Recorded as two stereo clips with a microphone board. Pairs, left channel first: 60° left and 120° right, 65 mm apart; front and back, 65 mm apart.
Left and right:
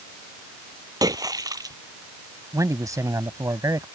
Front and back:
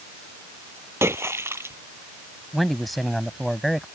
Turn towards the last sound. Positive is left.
turn(degrees=-90)